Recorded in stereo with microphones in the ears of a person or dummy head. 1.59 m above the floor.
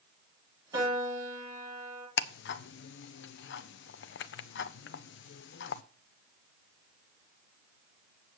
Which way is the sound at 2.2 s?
65° left (ahead or behind).